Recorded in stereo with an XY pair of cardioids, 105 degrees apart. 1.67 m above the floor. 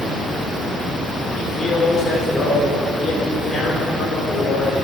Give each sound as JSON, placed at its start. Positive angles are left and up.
{"t": 1.3, "sound": "a man speaking", "azimuth_deg": 40, "distance_m": 4.5}